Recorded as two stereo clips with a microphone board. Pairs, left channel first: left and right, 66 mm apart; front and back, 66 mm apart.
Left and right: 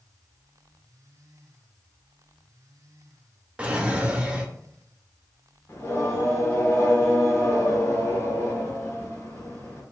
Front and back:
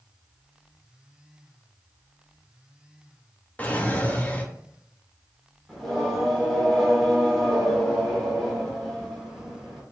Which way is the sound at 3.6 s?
35° right.